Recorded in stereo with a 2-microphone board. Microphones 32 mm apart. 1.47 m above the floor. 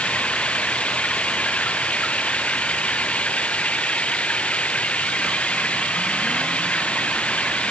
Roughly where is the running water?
Left.